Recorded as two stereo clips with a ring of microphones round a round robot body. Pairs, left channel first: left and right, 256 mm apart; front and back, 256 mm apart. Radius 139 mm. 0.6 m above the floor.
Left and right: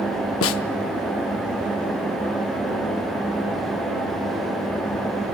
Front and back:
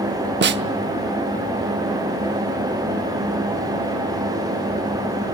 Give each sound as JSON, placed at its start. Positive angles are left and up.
{"t": 0.4, "sound": "a snare drum", "azimuth_deg": 130, "distance_m": 0.8}